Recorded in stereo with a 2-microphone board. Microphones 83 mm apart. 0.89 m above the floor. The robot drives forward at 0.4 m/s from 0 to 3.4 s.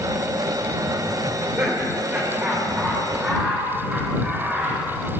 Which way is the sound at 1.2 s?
20° right (ahead or behind).